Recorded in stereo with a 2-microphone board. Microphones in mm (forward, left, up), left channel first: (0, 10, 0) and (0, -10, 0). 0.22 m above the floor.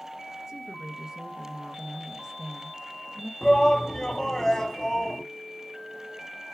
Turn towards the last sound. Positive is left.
turn(degrees=25)  # may be behind; listen again after turning